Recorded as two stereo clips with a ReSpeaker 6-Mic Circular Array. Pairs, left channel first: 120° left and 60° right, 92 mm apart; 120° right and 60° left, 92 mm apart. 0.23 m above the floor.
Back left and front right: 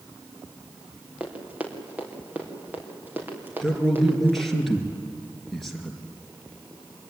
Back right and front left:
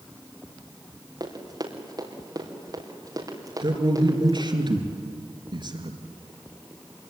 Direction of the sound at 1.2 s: 15° left.